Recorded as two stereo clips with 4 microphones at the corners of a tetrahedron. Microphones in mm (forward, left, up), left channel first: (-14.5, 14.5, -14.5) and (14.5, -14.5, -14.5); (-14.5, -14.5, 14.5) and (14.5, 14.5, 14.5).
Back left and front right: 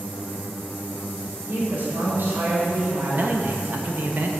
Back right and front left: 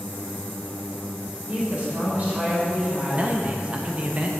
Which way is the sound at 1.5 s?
10° right.